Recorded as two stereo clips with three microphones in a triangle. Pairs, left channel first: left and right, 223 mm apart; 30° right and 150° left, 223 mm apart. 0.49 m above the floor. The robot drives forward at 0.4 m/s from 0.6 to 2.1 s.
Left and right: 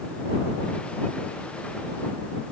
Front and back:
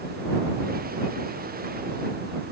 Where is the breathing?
I don't hear breathing.